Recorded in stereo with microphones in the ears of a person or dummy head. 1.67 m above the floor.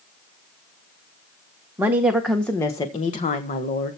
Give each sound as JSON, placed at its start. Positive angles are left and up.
{"t": 1.8, "sound": "a woman speaking", "side_deg": -10, "distance_m": 1.5}